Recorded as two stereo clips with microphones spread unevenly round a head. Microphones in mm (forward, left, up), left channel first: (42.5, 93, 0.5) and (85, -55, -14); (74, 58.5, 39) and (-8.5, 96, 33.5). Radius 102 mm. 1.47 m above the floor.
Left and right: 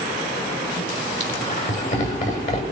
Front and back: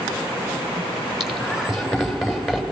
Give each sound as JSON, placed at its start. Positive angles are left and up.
{"t": 1.2, "sound": "laughter", "azimuth_deg": 70, "distance_m": 8.0}